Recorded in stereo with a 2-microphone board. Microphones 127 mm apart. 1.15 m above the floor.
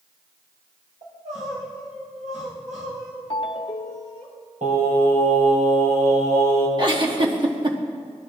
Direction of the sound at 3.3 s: 45° left (ahead or behind).